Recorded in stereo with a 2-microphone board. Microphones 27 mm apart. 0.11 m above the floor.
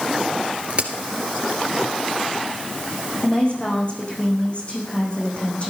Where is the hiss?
I don't hear a hiss.